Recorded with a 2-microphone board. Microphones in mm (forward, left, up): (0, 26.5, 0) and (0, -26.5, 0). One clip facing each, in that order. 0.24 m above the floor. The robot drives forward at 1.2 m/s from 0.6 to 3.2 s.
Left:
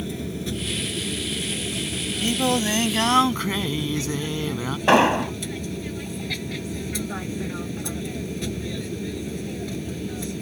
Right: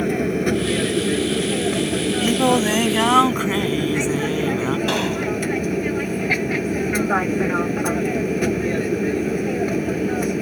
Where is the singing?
25° right (ahead or behind); by 4.8 s 15° right (ahead or behind).